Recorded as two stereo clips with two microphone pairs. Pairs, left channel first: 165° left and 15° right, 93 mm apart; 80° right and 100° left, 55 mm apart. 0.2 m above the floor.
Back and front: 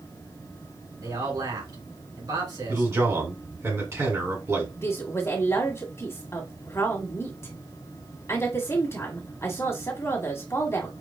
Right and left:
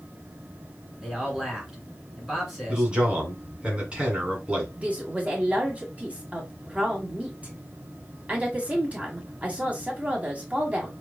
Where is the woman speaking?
135° left, 1.7 m.